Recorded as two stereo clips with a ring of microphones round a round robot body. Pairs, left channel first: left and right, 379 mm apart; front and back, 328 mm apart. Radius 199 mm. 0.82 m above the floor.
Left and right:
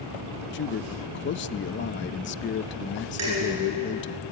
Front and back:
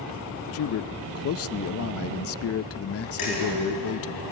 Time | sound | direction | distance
0.5 | a man speaking | 35° left | 0.5 m
3.2 | dishes clattering | 40° right | 9.5 m